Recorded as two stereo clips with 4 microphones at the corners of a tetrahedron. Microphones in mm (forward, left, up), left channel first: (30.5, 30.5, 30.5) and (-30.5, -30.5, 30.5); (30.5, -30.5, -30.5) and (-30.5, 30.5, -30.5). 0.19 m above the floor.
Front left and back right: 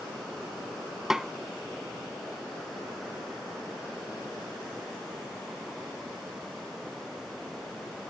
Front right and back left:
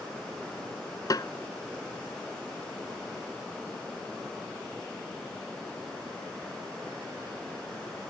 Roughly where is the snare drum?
Ahead right.